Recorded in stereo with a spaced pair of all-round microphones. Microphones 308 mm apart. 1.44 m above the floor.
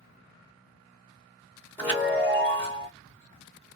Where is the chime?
5° left (ahead or behind), 1.4 m.